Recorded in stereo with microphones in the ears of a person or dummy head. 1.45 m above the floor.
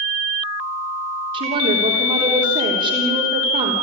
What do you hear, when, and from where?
1.3 s a woman speaking: 45° right (ahead or behind), 3.5 m